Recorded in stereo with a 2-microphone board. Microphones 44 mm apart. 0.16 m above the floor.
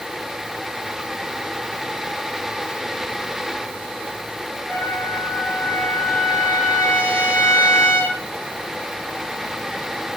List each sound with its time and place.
4.7 s a trumpet: 50° left (ahead or behind), 2.5 m